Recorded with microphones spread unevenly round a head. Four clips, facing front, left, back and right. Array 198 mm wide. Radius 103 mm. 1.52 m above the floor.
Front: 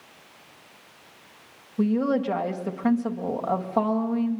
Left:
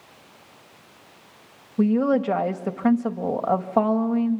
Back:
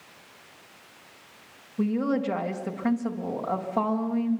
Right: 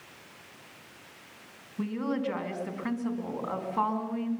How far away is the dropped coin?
I don't hear a dropped coin.